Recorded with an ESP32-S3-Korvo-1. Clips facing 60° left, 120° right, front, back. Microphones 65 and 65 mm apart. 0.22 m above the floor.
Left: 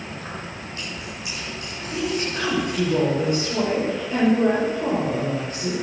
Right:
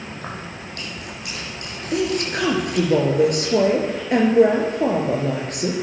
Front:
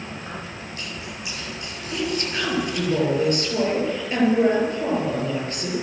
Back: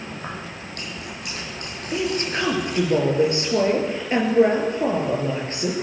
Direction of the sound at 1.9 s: 115° right.